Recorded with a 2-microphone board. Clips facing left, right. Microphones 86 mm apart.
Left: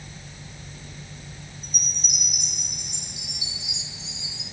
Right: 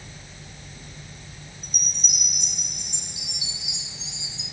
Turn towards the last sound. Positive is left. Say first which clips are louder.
# left 1 dB
turn(degrees=30)  # may be behind; listen again after turning